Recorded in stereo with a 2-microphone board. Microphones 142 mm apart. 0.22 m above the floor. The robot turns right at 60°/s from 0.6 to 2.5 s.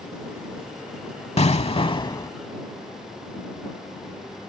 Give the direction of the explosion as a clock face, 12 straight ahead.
9 o'clock.